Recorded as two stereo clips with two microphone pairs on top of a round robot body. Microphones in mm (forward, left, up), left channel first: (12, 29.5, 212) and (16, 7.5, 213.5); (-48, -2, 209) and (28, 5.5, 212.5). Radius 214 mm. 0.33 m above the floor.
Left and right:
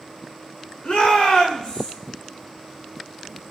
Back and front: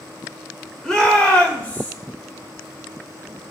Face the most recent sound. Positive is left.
turn(degrees=125)